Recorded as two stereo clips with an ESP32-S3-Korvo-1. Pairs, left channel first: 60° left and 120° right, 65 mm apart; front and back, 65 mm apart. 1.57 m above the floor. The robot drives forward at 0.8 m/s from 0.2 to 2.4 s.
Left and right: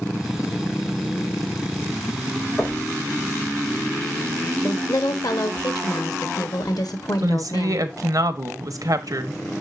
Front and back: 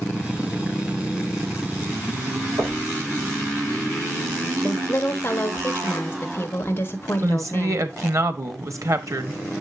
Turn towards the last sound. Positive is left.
turn(degrees=-145)